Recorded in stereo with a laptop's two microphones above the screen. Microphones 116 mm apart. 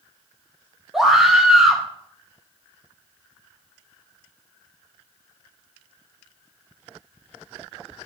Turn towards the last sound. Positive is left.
turn(degrees=-5)  # may be behind; listen again after turning